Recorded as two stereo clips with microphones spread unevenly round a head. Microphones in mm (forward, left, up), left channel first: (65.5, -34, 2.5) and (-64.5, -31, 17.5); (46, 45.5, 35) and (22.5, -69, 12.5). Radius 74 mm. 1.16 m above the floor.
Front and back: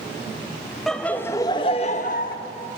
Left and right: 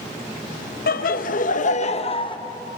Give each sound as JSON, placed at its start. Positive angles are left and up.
{"t": 0.9, "sound": "laughter", "azimuth_deg": 85, "distance_m": 1.2}